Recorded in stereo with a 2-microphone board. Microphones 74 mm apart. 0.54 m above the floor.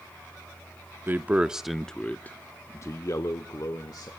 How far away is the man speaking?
About 0.8 m.